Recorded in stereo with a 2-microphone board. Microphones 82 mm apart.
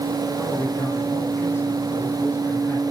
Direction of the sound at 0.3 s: 30° left (ahead or behind).